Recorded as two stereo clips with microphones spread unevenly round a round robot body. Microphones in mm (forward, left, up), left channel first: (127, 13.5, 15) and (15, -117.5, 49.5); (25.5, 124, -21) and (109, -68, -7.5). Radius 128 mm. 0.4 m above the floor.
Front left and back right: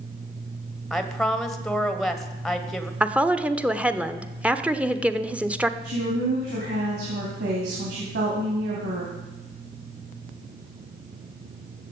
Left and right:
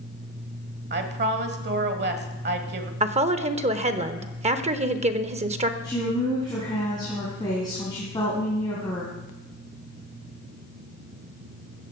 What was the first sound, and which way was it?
A woman speaking, 30° right.